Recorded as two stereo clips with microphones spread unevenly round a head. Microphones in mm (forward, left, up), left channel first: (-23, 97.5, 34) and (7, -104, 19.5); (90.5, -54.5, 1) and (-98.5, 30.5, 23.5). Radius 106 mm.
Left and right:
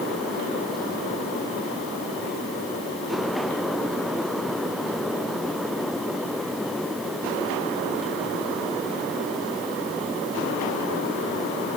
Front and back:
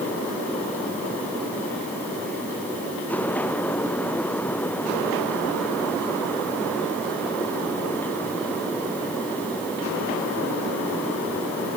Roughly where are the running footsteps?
No running footsteps in this recording.